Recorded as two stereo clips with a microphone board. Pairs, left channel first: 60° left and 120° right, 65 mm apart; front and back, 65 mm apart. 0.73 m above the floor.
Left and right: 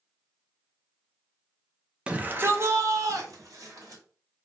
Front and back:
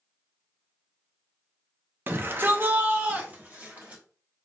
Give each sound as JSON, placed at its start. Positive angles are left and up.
{"t": 2.1, "sound": "a shout", "azimuth_deg": 180, "distance_m": 0.6}